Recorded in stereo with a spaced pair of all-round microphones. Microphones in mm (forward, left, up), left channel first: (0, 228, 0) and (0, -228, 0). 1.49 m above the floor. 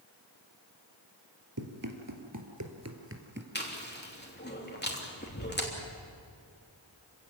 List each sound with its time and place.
1.6 s running footsteps: 45° right (ahead or behind), 2.5 m; by 3.5 s 20° right (ahead or behind), 2 m
3.5 s chewing: 20° left (ahead or behind), 3 m